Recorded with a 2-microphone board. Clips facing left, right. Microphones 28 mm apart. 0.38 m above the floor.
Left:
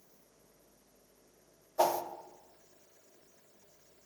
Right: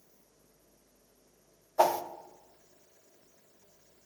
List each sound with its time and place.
1.8 s a whoosh: 35° right (ahead or behind), 0.5 m